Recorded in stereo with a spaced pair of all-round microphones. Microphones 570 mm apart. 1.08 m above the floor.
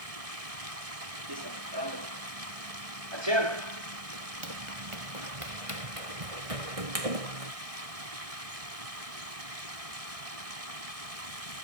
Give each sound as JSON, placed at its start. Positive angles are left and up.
{"t": 0.0, "sound": "running water", "side_deg": -85}
{"t": 1.3, "sound": "running footsteps", "side_deg": -40}